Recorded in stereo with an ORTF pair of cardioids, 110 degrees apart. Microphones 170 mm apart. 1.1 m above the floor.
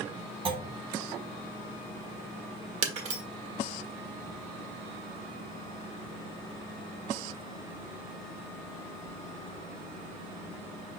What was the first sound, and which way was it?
A clunk, 35° right.